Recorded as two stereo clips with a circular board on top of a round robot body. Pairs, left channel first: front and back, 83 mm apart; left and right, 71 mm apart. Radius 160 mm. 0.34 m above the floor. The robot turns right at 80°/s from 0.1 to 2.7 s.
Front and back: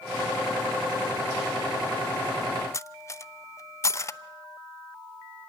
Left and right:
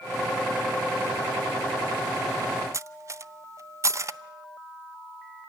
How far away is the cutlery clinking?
About 0.7 m.